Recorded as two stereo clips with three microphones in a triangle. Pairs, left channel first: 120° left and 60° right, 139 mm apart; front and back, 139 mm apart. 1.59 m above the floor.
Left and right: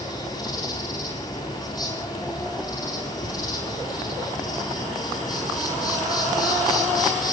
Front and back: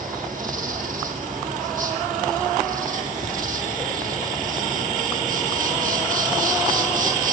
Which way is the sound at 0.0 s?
Straight behind.